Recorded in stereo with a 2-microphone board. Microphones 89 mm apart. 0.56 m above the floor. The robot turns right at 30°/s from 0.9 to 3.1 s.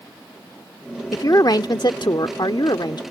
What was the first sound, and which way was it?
A woman speaking, 55° left.